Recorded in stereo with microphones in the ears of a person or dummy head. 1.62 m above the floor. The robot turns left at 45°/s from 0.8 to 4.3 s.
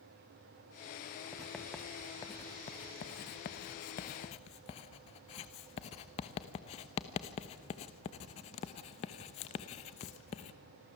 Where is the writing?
5° right (ahead or behind), 1.0 m; by 10.5 s 30° left (ahead or behind), 1.0 m.